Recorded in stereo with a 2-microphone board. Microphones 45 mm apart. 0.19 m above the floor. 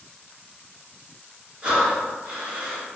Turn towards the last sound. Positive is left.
turn(degrees=-15)  # may be behind; listen again after turning